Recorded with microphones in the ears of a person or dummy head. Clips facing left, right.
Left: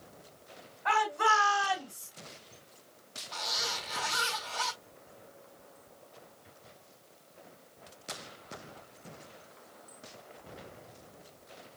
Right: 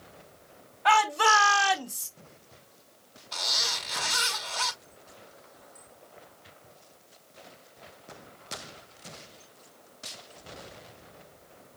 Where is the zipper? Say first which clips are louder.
Right 1 dB; 50° right (ahead or behind), 6 m.